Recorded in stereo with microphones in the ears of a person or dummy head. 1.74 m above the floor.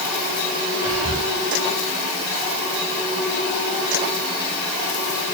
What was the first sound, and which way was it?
Whispering, 35° left (ahead or behind).